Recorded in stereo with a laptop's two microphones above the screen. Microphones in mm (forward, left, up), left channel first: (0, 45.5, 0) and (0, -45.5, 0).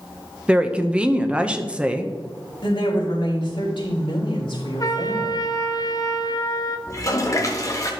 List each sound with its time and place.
0.5 s a woman speaking: 10° right (ahead or behind), 0.7 m
2.6 s a woman speaking: 65° left (ahead or behind), 3.5 m
4.8 s a trumpet: 40° left (ahead or behind), 0.7 m
6.9 s a toilet flushing: 35° left (ahead or behind), 1.0 m